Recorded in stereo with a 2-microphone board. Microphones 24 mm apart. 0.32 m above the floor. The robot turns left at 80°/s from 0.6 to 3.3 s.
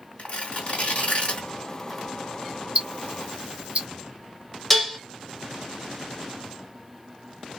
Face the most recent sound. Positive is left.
turn(degrees=5)  # may be behind; listen again after turning